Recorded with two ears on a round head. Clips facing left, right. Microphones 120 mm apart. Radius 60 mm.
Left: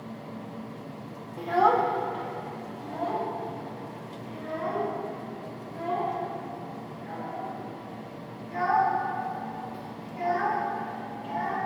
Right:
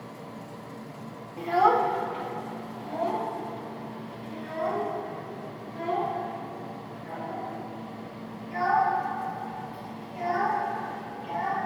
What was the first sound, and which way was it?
A child speaking, centre (ahead or behind).